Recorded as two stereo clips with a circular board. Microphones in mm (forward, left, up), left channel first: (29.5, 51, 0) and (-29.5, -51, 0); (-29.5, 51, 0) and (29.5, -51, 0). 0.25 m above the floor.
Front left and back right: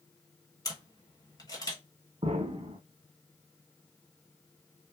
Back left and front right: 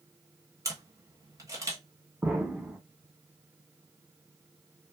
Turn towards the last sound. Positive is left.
turn(degrees=-140)